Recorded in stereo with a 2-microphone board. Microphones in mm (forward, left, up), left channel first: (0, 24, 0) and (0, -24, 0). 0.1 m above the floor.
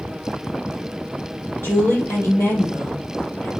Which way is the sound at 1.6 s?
60° left (ahead or behind).